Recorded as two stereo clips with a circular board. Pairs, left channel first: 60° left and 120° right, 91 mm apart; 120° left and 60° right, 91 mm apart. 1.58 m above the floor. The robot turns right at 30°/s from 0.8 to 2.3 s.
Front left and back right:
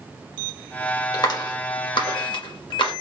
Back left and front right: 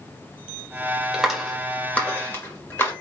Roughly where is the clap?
Ahead.